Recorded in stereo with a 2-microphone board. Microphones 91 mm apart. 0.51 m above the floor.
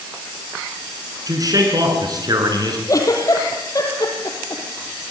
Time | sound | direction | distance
1.3 | a man speaking | 45° right (ahead or behind) | 7 m
2.9 | a giggle | 40° left (ahead or behind) | 4.5 m